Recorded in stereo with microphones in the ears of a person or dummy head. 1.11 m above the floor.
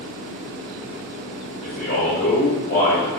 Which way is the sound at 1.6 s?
50° left (ahead or behind).